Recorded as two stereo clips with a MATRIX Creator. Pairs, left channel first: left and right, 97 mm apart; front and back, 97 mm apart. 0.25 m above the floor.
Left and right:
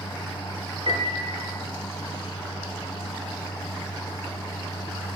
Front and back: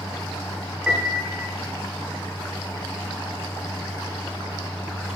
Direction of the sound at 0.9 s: 100° right.